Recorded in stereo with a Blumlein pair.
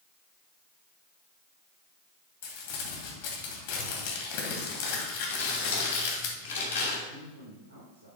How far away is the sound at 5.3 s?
About 3 m.